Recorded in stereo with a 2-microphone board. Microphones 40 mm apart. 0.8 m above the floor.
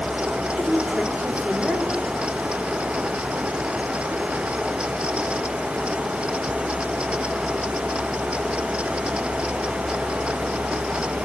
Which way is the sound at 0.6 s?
30° right (ahead or behind).